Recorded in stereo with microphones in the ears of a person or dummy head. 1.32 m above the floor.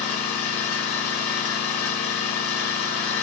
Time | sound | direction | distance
0.0 | an engine running | 40° left (ahead or behind) | 1.4 m